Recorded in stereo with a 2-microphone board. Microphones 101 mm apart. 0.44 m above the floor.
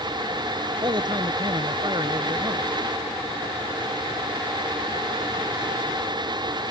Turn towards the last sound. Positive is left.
turn(degrees=-50)  # may be behind; listen again after turning